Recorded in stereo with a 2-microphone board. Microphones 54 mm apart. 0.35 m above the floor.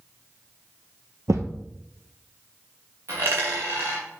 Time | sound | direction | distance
1.3 | a thud | 80° right | 1.3 m
3.1 | a dropped coin | 65° right (ahead or behind) | 2.5 m